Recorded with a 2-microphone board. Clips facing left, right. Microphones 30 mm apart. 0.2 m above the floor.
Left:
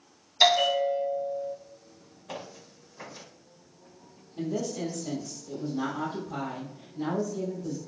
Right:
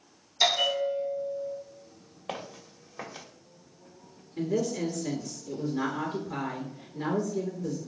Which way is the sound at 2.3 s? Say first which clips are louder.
Right 2 dB; 80° right.